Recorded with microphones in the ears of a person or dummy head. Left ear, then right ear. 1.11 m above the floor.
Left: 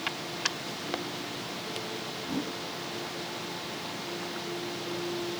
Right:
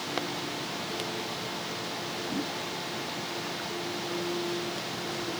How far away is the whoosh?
About 2 m.